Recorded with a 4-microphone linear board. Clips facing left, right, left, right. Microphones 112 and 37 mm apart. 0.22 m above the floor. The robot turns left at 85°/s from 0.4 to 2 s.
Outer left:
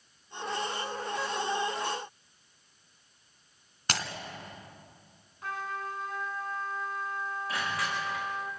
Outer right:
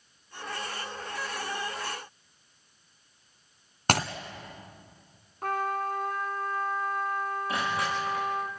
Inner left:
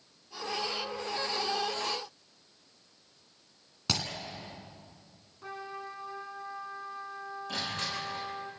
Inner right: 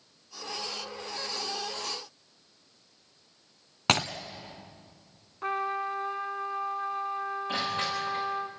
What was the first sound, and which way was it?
Breaking glass, 55° right (ahead or behind).